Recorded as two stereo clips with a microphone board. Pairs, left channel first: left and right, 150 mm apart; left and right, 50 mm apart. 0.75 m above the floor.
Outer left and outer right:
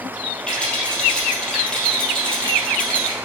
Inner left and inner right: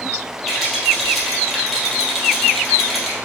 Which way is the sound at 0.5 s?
5° left (ahead or behind).